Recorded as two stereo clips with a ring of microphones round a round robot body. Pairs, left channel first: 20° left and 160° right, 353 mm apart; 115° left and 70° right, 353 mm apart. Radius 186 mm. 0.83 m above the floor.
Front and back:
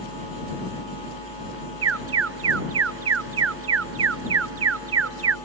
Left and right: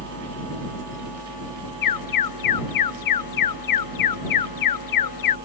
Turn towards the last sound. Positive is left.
turn(degrees=150)